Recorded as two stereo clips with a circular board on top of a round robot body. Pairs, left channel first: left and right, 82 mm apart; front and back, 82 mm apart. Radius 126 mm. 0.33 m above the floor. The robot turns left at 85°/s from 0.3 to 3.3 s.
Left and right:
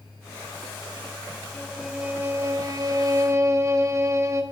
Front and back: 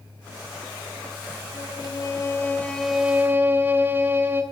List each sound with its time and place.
1.5 s a violin: 25° left, 1.1 m; by 4.4 s 125° right, 1.1 m